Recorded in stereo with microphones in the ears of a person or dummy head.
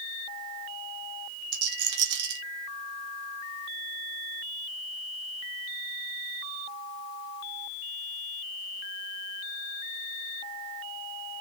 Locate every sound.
1.5 s a rattle: 55° right (ahead or behind), 1.5 m